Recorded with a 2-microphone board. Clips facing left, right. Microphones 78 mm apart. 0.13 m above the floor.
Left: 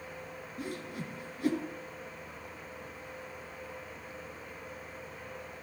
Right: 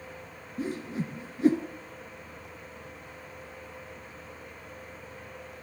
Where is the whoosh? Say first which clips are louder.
Right 7 dB; 25° right (ahead or behind), 1.8 m.